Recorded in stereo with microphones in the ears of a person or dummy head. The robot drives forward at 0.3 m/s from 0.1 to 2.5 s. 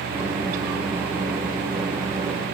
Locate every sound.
Only background noise.